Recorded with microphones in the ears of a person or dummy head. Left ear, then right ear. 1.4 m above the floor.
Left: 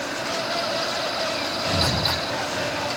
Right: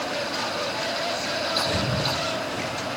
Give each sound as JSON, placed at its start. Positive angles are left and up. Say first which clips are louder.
{"t": 1.6, "sound": "breathing", "louder": "left 3 dB", "side_deg": 20, "distance_m": 3.0}